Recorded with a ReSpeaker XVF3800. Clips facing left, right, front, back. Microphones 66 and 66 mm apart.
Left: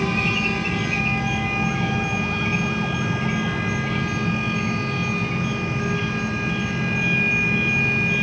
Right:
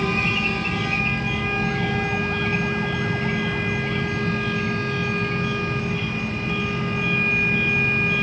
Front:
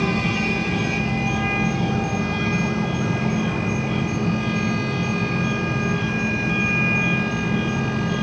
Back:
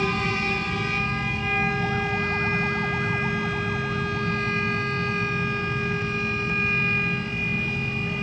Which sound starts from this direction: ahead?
An insect, at 0.0 s.